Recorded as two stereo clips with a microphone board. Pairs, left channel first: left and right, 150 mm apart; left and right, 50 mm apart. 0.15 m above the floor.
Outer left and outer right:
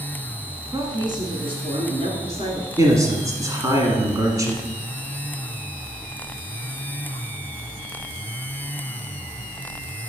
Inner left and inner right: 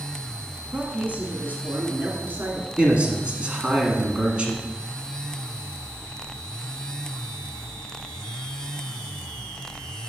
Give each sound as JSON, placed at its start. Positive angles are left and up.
{"t": 0.7, "sound": "a woman speaking", "side_deg": -25, "distance_m": 1.5}
{"t": 2.8, "sound": "a man speaking", "side_deg": -20, "distance_m": 1.2}